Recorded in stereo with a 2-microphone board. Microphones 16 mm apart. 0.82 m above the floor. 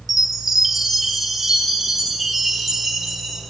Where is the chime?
20° right (ahead or behind), 7 m.